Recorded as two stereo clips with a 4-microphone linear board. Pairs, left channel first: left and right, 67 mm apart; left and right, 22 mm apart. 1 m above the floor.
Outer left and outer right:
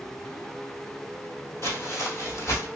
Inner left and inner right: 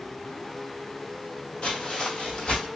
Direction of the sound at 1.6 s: 45° left (ahead or behind).